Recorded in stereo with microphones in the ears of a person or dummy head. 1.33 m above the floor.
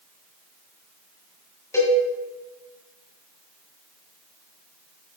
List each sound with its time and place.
1.7 s a cowbell: 15° left (ahead or behind), 1.7 m